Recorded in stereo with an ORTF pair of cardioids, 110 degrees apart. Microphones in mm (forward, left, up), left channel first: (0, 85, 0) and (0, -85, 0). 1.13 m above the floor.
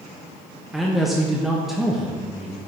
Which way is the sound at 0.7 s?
Straight ahead.